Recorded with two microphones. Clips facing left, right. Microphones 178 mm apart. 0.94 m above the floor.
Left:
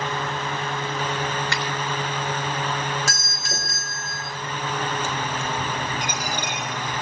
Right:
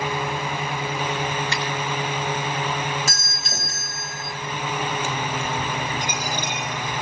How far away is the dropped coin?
About 7.5 m.